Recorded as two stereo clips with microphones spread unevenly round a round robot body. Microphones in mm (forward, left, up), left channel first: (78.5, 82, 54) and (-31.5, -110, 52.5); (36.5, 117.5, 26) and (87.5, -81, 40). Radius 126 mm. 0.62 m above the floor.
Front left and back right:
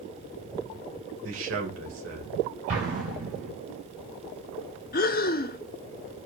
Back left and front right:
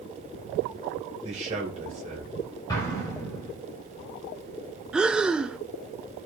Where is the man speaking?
140° right, 2.5 m.